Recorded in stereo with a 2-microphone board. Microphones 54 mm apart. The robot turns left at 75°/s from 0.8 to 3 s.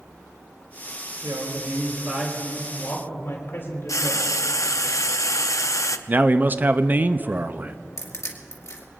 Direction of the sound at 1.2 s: 90° right.